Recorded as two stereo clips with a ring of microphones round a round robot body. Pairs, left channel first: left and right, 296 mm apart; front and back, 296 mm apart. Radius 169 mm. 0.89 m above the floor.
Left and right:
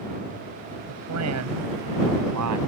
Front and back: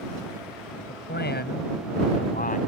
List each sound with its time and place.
0.9 s a man speaking: 55° right; by 2.6 s 65° right